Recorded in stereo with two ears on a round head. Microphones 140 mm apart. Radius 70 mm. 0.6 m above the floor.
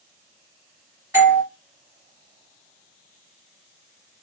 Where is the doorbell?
20° right (ahead or behind), 1.8 m.